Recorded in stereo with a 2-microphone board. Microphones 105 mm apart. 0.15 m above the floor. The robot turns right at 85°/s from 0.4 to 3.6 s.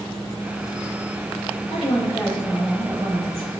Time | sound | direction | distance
1.7 | a woman speaking | 105° left | 3.5 m